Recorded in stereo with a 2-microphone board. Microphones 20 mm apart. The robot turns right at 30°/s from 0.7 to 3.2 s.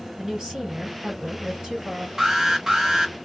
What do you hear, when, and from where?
0.2 s a woman speaking: 125° right, 3 m; by 2.1 s 85° right, 3 m
2.2 s an alarm: 30° right (ahead or behind), 1.1 m; by 3.1 s 40° right (ahead or behind), 1.1 m